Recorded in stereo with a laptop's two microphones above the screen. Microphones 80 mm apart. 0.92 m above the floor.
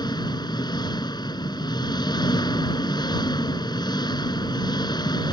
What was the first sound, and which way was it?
An engine running, 65° left (ahead or behind).